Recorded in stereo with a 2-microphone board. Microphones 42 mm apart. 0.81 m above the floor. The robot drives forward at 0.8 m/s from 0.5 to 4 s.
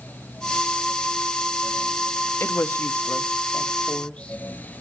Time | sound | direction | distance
2.4 | a woman speaking | 60° left (ahead or behind) | 0.9 m